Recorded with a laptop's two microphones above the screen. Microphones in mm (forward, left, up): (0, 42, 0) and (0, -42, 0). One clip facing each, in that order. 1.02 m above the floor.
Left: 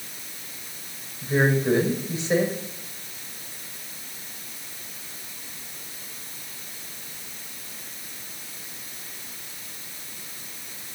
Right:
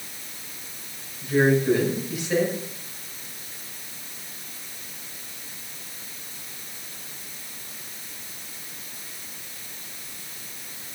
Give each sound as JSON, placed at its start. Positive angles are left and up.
{"t": 1.2, "sound": "a woman speaking", "side_deg": 30, "distance_m": 5.5}